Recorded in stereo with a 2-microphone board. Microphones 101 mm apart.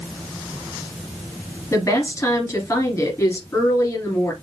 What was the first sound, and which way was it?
A woman speaking, 25° left (ahead or behind).